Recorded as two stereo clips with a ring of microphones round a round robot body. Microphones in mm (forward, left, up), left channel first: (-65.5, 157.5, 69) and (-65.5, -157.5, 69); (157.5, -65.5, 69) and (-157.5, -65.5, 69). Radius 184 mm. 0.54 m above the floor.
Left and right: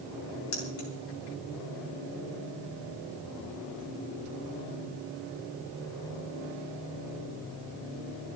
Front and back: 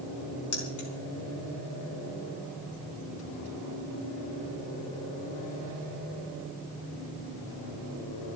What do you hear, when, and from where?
0.5 s keys jangling: 35° left, 4 m